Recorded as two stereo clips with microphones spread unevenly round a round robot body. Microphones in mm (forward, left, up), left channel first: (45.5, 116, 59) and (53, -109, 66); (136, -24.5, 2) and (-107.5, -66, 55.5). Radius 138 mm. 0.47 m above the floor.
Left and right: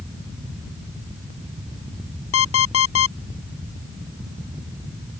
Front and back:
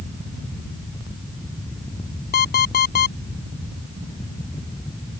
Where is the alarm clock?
70° left.